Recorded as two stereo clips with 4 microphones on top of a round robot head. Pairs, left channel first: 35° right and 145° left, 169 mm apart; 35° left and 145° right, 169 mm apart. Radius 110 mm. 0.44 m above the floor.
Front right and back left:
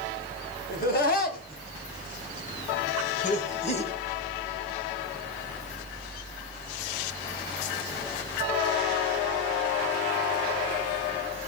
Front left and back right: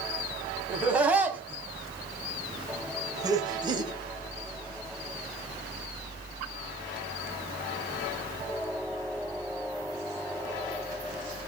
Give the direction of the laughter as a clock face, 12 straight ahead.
2 o'clock.